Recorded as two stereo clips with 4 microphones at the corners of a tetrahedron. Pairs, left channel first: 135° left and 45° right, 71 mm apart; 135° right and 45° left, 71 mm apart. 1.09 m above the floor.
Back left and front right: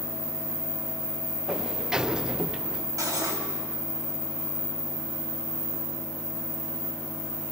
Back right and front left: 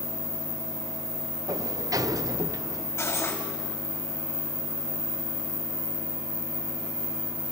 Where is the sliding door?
30° left, 0.6 m.